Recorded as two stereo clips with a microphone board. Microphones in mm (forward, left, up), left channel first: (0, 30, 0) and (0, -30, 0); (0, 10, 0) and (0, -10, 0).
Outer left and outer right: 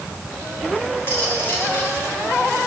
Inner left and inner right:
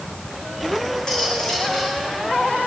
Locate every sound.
1.1 s cutlery clinking: 40° left (ahead or behind), 7 m